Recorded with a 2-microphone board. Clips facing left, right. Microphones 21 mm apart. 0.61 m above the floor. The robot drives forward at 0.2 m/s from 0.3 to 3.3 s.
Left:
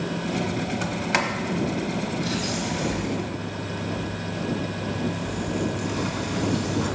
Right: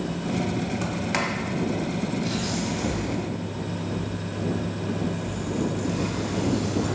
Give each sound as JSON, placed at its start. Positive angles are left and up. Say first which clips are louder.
{"t": 0.8, "sound": "a sliding door", "louder": "left 4 dB", "side_deg": 15, "distance_m": 0.8}